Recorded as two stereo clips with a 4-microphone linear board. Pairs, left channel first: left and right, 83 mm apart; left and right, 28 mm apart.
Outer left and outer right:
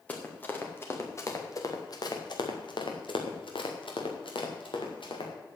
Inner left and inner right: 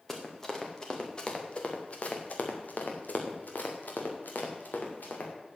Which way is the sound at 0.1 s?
15° left (ahead or behind).